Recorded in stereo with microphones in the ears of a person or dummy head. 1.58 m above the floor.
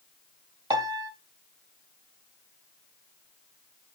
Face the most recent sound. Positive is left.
turn(degrees=-25)  # may be behind; listen again after turning